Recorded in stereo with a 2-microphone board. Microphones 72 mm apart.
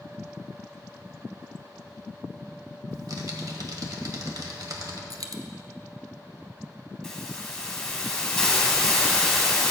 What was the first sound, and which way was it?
Typing on a keyboard, 60° right (ahead or behind).